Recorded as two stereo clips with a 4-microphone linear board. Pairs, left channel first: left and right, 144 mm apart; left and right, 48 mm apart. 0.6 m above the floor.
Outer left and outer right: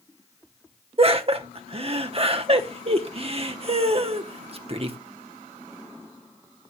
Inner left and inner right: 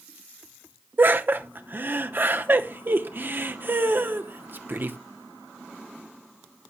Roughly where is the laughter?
Right.